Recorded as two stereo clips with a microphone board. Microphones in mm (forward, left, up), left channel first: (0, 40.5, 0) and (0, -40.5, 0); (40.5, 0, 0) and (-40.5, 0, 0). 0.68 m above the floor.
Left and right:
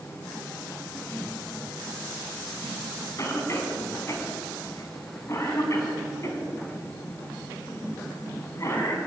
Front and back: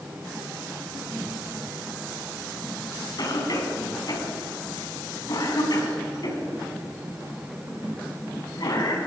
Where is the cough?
35° left, 5.5 m.